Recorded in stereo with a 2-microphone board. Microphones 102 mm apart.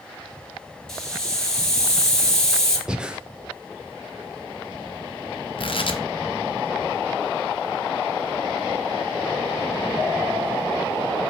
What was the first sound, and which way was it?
A hiss, 5° left (ahead or behind).